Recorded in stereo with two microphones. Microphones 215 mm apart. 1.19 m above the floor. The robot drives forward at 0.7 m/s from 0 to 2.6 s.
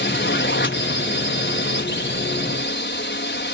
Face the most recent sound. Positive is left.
turn(degrees=60)  # may be behind; listen again after turning